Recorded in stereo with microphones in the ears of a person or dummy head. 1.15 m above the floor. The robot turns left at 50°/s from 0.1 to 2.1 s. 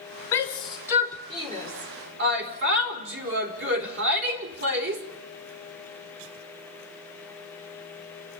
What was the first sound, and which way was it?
A shout, 20° left (ahead or behind).